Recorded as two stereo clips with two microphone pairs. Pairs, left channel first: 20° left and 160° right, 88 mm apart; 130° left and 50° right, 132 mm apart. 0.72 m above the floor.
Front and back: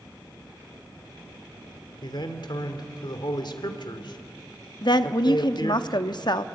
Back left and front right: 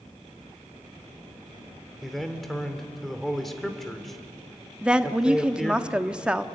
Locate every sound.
2.0 s a man speaking: 45° left, 2.5 m
4.8 s a woman speaking: 35° left, 1.0 m